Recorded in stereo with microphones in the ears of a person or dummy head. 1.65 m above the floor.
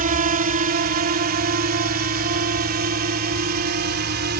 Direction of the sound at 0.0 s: 35° right (ahead or behind).